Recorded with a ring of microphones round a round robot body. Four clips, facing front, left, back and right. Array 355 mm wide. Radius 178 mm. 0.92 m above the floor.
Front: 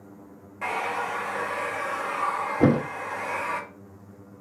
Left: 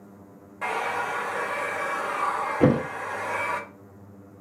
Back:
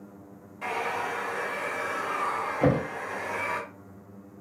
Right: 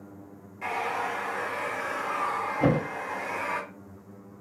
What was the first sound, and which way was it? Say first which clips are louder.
A hair dryer: left 2 dB, front 2 dB; 60° left.